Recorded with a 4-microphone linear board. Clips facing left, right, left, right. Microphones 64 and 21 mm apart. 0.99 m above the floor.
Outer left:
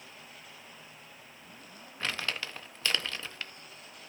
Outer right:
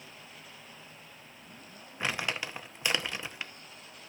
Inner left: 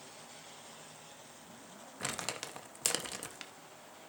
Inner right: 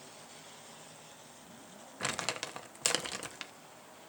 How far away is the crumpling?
About 0.7 m.